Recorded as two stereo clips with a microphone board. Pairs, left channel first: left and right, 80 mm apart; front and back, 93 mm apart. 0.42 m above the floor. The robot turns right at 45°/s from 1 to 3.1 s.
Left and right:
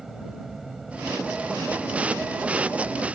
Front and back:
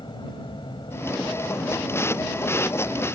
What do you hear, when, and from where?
0.0 s an aircraft: 5° right; by 3.1 s 90° left